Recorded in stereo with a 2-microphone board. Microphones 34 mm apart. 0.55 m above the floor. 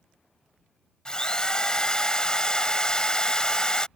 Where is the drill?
25° left (ahead or behind).